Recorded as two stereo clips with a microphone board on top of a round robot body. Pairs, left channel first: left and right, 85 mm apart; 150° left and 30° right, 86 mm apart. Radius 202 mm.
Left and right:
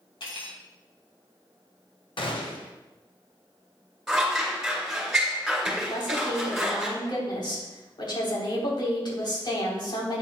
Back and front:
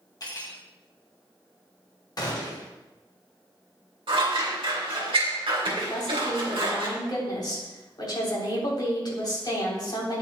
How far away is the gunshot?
About 1.5 m.